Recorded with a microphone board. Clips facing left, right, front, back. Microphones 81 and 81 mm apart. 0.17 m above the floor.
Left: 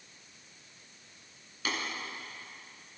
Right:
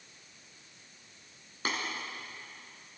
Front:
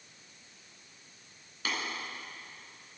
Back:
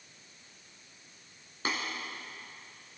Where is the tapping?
130° right, 2.5 m.